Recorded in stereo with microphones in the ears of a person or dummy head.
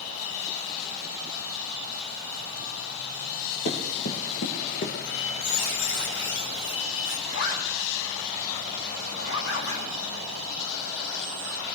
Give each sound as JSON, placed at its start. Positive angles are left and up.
{"t": 3.6, "sound": "running footsteps", "side_deg": 50, "distance_m": 2.5}
{"t": 5.0, "sound": "a squeak", "side_deg": 65, "distance_m": 4.5}
{"t": 7.3, "sound": "a zipper", "side_deg": 75, "distance_m": 3.5}